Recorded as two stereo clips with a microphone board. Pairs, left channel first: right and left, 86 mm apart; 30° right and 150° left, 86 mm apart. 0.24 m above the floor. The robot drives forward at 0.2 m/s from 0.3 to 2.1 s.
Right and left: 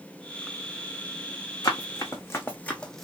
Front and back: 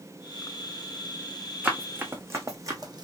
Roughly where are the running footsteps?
Behind right.